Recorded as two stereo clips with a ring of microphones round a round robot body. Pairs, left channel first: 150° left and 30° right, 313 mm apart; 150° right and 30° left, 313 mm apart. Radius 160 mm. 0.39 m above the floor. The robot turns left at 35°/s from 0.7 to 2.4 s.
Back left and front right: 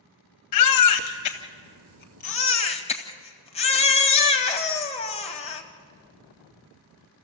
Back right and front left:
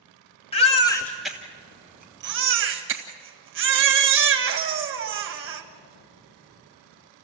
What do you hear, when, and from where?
0.5 s a baby crying: 140° left, 1.7 m; by 5.6 s 80° left, 1.7 m